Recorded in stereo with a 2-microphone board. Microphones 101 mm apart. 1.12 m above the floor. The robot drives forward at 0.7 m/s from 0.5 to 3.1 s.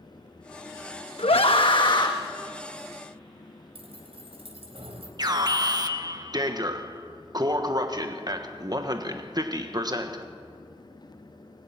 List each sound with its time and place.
1.2 s a scream: 75° left (ahead or behind), 0.9 m; by 2.1 s 45° left (ahead or behind), 1.2 m
3.8 s keys jangling: 75° right (ahead or behind), 3.5 m
5.2 s an alarm: 45° right (ahead or behind), 1.4 m